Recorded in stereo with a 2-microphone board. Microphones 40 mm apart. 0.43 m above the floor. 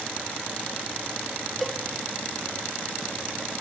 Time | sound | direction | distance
1.6 | a cowbell | centre (ahead or behind) | 0.6 m